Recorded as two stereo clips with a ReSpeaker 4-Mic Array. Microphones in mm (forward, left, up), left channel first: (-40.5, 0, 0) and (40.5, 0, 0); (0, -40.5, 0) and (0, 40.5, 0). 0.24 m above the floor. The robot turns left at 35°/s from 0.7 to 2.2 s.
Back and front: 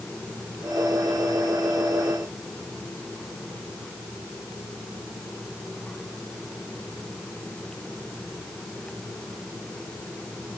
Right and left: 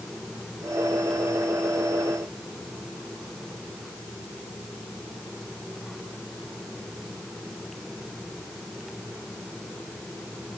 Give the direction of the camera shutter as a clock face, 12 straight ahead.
No camera shutter in this recording.